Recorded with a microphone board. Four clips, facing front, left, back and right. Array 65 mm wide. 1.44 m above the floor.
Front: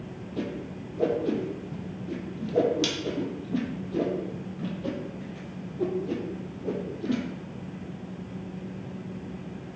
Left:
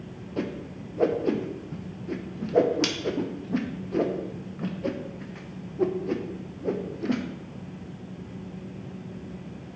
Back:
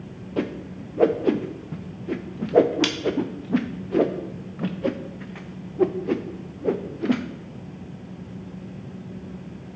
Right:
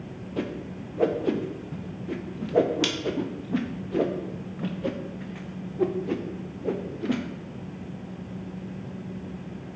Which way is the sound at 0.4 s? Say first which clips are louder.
Even, back 6 dB; 170° left.